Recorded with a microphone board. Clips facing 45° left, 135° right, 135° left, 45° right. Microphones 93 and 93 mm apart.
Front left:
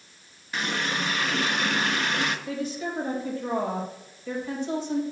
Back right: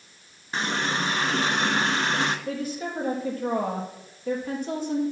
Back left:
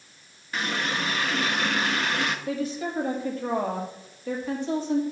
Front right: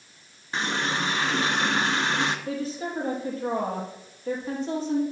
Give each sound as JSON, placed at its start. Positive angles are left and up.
{"t": 0.5, "sound": "a running tap", "azimuth_deg": -95, "distance_m": 1.1}
{"t": 2.5, "sound": "a woman speaking", "azimuth_deg": -95, "distance_m": 4.5}